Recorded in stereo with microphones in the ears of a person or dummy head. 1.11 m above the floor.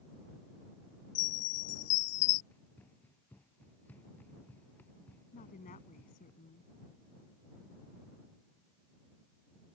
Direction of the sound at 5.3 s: 45° left (ahead or behind).